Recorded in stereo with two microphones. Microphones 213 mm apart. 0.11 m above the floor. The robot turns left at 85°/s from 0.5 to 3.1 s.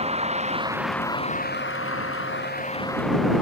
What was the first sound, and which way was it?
A vehicle, 30° right (ahead or behind).